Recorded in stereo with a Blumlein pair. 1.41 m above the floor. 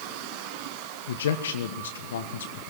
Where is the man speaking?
60° left, 1.3 m.